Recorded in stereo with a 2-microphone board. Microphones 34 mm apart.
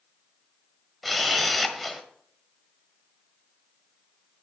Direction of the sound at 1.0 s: Centre (ahead or behind).